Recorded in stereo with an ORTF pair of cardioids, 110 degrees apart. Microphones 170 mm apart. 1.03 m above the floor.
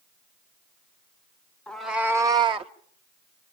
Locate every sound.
1.7 s a cat meowing: 5° left, 1.1 m; by 2.7 s 40° right, 1.1 m